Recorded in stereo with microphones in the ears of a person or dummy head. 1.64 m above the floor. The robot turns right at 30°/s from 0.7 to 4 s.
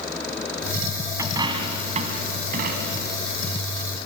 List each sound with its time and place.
1.2 s a dropped coin: 15° right (ahead or behind), 3 m; by 3.2 s 60° right (ahead or behind), 3 m